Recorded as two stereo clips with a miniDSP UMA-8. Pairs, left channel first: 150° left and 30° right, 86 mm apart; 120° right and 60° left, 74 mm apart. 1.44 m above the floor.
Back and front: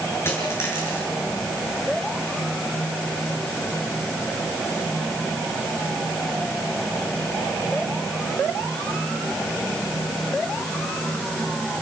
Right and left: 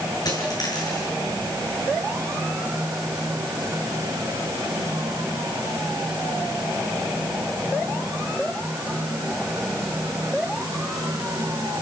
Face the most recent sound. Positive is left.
turn(degrees=-150)